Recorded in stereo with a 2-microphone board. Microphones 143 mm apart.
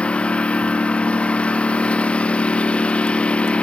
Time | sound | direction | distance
0.0 | a lawn mower | 10° left (ahead or behind) | ?